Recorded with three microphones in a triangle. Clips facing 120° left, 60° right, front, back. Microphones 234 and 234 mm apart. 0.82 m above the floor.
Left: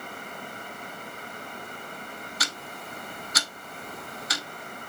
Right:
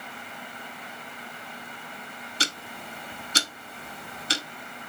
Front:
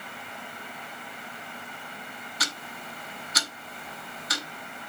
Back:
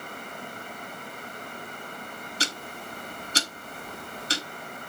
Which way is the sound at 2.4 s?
125° right.